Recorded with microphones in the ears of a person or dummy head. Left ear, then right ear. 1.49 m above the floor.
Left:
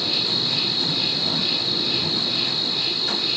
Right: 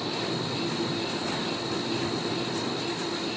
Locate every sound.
0.0 s an insect: 60° left (ahead or behind)